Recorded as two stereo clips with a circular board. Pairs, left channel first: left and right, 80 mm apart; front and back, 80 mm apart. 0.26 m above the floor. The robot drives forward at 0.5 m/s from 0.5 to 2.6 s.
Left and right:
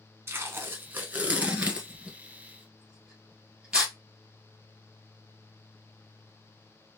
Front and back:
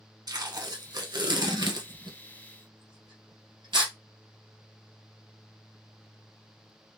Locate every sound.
0.3 s tape being pulled: 145° right, 0.6 m; by 3.9 s 170° right, 1.6 m